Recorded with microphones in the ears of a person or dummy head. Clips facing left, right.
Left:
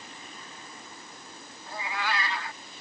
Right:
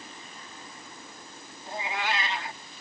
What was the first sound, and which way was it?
A cat meowing, 20° right (ahead or behind).